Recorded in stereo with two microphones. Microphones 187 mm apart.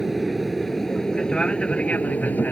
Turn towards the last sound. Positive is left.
turn(degrees=10)  # may be behind; listen again after turning